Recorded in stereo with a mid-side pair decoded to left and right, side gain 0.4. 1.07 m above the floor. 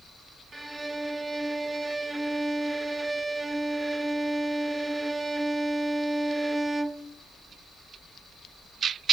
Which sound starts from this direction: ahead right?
A violin, at 0.5 s.